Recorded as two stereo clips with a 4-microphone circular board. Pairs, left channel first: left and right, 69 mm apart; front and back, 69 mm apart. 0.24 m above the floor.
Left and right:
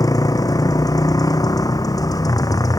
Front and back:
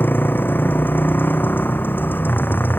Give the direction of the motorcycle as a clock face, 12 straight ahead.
10 o'clock.